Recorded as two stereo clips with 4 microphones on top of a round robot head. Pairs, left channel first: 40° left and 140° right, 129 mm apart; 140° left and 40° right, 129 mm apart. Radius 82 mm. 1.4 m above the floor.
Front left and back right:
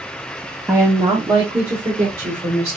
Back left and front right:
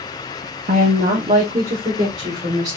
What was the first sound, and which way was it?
A woman speaking, 60° right.